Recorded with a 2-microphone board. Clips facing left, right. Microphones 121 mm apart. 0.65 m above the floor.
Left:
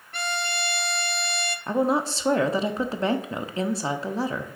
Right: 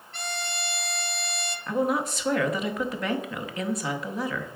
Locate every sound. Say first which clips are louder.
0.1 s a violin: left 5 dB; 60° left (ahead or behind), 0.6 m
1.7 s a woman speaking: left 2 dB; 30° left (ahead or behind), 0.7 m